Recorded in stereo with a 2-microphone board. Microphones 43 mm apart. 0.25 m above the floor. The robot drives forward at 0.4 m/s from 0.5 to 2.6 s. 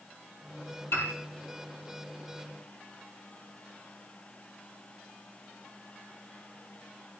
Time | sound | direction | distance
0.9 | a piano | 70° left (ahead or behind) | 5.5 m